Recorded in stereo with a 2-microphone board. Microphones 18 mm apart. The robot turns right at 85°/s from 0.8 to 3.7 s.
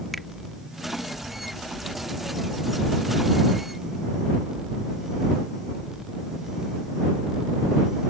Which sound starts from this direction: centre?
A finger snap, at 0.1 s.